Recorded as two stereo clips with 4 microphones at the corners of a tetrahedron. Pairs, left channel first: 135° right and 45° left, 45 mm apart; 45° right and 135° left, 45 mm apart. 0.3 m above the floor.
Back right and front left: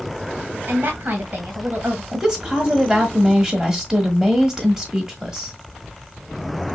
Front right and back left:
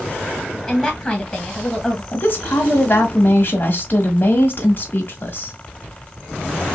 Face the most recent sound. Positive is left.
turn(degrees=-25)